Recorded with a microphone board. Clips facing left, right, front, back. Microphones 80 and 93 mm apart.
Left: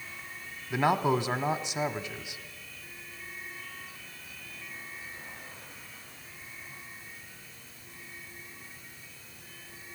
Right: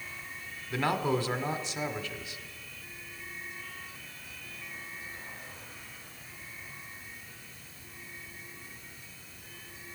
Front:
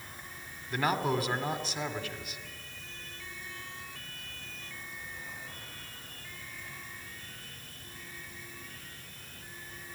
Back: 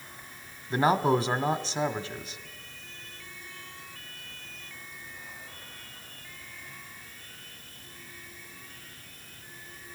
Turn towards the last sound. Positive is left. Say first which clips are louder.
# left 3 dB, back 6 dB
turn(degrees=145)